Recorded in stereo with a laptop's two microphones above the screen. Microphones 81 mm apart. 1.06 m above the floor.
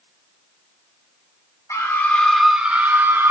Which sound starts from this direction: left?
A scream, at 1.7 s.